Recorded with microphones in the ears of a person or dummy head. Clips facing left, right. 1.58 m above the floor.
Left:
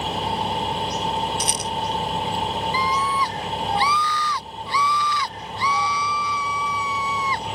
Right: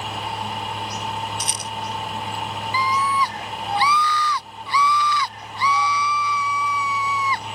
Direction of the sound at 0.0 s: 25° left (ahead or behind).